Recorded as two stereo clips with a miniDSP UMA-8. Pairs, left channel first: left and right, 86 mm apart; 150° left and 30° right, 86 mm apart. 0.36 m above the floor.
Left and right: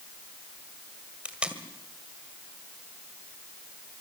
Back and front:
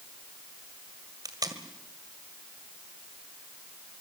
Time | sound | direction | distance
1.2 | tape being pulled | 15° right | 1.9 m